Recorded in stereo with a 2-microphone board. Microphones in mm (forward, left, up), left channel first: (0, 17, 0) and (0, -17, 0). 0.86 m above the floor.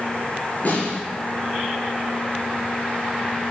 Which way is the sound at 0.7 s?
55° left (ahead or behind).